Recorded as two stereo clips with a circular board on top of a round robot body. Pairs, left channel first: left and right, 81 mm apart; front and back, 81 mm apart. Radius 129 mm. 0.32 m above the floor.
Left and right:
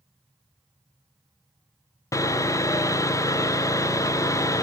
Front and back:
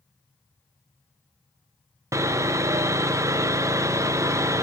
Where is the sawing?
135° left, 0.7 m.